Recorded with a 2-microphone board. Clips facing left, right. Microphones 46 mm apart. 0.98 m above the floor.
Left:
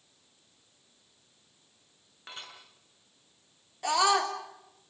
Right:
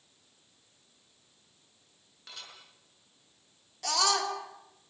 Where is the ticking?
I don't hear ticking.